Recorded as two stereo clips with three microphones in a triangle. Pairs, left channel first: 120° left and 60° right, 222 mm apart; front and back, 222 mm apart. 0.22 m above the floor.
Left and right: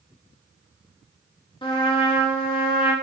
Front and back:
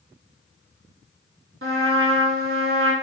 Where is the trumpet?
175° right, 0.9 m.